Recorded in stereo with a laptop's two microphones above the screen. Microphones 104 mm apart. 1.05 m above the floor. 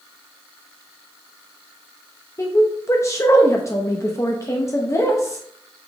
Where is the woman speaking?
25° left (ahead or behind), 0.7 m.